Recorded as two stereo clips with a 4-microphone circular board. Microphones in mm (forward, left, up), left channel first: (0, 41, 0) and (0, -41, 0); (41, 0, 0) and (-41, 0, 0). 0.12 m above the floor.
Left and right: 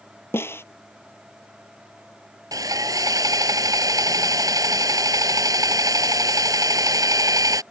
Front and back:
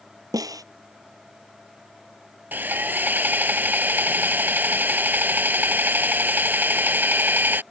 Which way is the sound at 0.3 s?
150° left.